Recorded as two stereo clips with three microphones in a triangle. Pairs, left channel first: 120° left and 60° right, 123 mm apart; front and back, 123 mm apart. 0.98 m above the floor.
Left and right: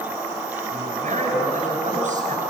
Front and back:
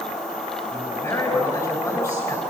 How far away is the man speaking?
About 8.5 m.